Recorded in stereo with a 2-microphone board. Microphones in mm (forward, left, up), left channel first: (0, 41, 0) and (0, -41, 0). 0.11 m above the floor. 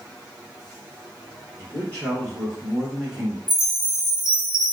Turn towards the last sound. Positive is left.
turn(degrees=-65)  # may be behind; listen again after turning